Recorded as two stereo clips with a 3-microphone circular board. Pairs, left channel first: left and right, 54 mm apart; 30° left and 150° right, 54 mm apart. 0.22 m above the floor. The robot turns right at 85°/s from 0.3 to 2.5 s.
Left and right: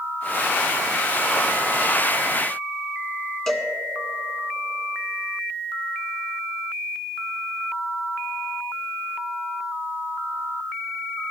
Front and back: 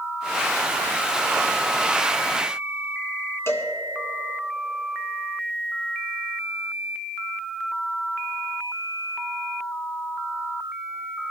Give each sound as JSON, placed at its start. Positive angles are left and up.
{"t": 3.5, "sound": "a cowbell", "azimuth_deg": 10, "distance_m": 1.5}